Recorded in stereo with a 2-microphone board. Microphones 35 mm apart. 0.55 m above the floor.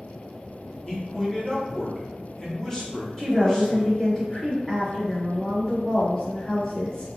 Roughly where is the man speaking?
Left.